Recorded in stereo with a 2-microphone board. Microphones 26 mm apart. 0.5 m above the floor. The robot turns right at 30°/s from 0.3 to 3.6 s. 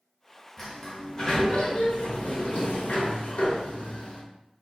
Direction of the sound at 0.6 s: 15° left.